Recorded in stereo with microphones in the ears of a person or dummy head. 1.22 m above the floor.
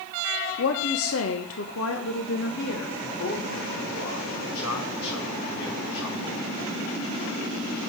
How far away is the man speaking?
About 4 m.